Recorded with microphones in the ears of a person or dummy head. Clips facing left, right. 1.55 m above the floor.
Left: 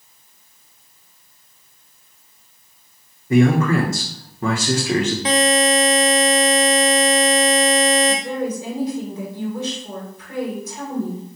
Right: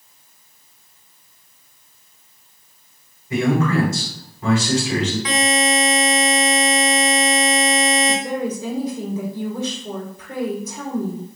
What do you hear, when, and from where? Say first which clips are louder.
3.3 s a man speaking: left 3 dB; 40° left (ahead or behind), 1.1 m
5.2 s a buzzer: left 6 dB; 25° left (ahead or behind), 0.7 m
8.1 s a woman speaking: even; 75° right (ahead or behind), 1.7 m